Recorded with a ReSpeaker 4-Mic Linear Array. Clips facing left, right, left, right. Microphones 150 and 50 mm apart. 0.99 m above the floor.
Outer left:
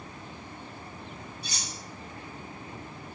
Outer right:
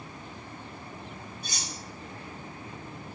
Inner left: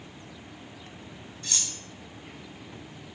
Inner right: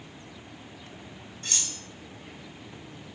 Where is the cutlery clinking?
50° right (ahead or behind), 3 m.